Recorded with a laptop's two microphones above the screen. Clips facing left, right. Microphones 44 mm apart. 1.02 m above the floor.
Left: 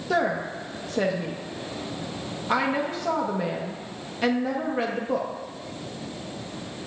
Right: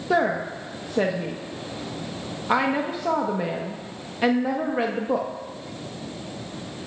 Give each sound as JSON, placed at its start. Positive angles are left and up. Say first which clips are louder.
{"t": 0.1, "sound": "a woman speaking", "louder": "right 2 dB", "side_deg": -15, "distance_m": 1.0}